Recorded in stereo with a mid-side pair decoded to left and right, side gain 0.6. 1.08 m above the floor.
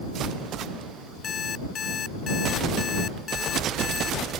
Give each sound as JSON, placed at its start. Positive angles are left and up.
{"t": 1.2, "sound": "an alarm clock", "azimuth_deg": 40}